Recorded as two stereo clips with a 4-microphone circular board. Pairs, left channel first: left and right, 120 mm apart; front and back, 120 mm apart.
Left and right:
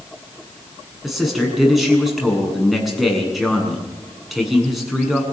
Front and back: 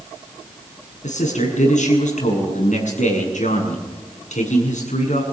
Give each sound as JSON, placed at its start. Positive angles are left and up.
{"t": 1.0, "sound": "a man speaking", "azimuth_deg": 0, "distance_m": 7.5}